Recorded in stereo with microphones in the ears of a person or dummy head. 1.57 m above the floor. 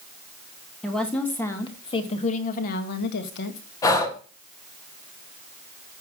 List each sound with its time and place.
0.8 s a woman speaking: centre (ahead or behind), 1.7 m; by 3.6 s 65° left (ahead or behind), 1.8 m
3.8 s breathing: 15° left (ahead or behind), 1.4 m